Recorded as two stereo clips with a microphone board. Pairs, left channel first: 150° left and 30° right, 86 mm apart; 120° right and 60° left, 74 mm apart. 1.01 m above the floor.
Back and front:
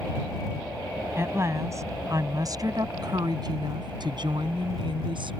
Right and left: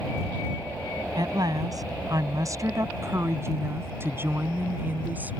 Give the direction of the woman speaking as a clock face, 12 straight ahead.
11 o'clock.